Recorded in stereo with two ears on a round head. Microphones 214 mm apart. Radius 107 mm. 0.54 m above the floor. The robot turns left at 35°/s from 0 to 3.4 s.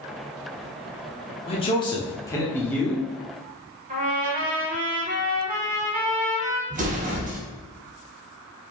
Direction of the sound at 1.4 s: 25° left (ahead or behind).